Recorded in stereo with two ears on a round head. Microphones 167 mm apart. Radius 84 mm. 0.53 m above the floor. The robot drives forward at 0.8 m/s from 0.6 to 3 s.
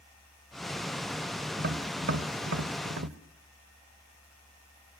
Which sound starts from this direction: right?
Tapping, at 1.6 s.